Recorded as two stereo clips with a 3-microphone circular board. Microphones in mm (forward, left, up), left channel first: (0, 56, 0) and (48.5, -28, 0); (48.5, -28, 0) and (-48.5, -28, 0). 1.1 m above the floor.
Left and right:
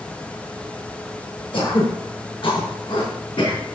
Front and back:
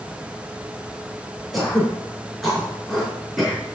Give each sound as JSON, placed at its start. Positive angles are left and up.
{"t": 1.5, "sound": "throat clearing", "azimuth_deg": 90, "distance_m": 5.5}